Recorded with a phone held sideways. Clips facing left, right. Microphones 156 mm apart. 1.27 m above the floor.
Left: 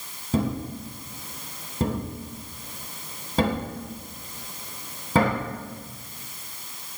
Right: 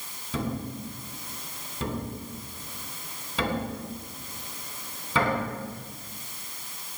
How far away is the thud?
About 3.5 m.